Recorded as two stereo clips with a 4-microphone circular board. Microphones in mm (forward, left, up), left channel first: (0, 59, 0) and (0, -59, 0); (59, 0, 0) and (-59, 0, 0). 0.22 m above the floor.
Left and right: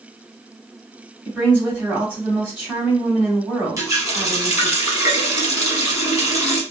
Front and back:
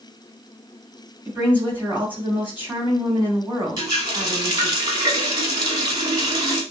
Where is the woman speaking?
135° right, 1.6 m.